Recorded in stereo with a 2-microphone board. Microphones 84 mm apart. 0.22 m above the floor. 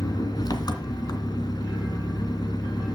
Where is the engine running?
55° left (ahead or behind), 2.0 m.